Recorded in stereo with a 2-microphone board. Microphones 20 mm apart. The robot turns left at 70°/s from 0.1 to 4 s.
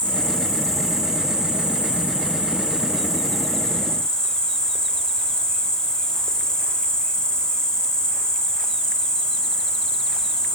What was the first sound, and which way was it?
An insect, 50° left.